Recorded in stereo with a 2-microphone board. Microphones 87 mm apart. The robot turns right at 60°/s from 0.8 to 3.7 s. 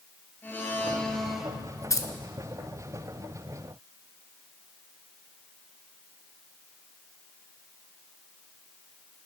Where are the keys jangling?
40° left (ahead or behind), 1.1 m.